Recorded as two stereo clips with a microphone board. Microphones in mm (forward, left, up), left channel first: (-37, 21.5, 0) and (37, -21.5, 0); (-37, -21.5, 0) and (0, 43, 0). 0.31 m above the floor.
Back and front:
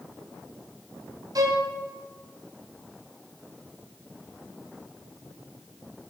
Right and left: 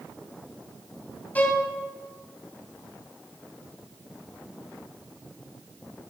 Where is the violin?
60° right, 2 m.